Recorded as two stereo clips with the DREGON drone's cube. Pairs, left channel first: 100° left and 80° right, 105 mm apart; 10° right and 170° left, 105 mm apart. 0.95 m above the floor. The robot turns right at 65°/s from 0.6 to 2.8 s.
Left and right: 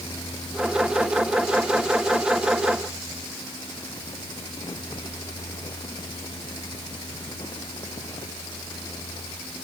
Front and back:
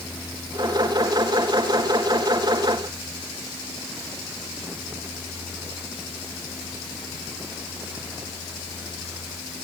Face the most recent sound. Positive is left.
No sound to turn to.